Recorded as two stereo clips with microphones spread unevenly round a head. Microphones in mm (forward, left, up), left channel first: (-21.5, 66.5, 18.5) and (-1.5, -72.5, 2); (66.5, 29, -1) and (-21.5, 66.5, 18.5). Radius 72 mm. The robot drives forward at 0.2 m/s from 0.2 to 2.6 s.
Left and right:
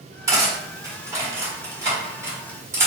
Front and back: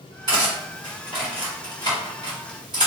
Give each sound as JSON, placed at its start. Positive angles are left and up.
{"t": 0.3, "sound": "cutlery clinking", "azimuth_deg": -150, "distance_m": 1.9}